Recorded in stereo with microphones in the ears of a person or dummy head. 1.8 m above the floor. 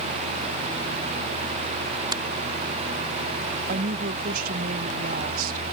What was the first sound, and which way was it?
A finger snap, 20° right (ahead or behind).